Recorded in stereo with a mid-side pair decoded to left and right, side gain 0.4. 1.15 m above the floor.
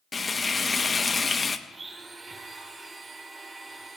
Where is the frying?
30° left, 1.0 m.